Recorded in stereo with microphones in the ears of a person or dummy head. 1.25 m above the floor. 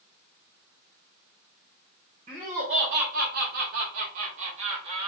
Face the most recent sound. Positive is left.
turn(degrees=-35)  # may be behind; listen again after turning